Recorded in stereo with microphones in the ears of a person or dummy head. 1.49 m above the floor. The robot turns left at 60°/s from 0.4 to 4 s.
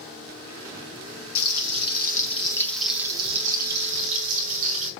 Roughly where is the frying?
Left.